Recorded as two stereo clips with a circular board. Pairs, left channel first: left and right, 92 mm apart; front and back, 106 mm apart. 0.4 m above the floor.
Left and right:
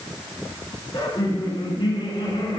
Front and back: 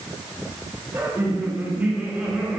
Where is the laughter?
115° left, 4 m; by 2.6 s 100° left, 4.5 m.